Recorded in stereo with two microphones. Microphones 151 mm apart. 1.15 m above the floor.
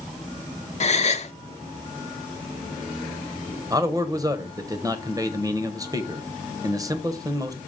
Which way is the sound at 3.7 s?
25° right (ahead or behind).